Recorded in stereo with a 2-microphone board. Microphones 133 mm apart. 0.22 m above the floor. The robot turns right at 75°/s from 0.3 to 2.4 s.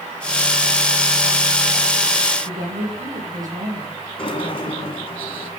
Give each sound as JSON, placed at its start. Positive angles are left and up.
{"t": 2.5, "sound": "a woman speaking", "side_deg": -80, "distance_m": 8.0}
{"t": 4.2, "sound": "a sliding door", "side_deg": 45, "distance_m": 2.5}